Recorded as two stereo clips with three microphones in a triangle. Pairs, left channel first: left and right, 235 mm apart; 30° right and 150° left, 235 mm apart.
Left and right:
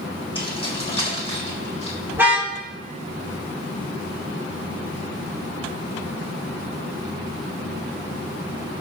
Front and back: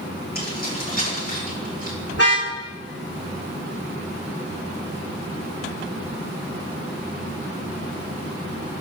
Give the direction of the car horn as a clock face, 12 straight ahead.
12 o'clock.